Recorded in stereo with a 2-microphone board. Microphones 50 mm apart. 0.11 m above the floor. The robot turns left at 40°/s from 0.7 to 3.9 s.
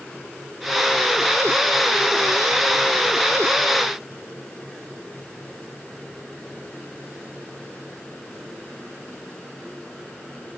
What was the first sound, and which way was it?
Only background noise.